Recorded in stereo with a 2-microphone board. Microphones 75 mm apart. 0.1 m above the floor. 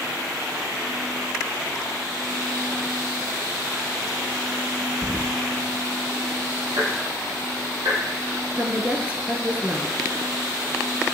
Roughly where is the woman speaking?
Centre.